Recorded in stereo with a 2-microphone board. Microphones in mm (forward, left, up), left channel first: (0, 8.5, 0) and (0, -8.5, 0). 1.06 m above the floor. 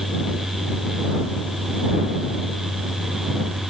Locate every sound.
Only background noise.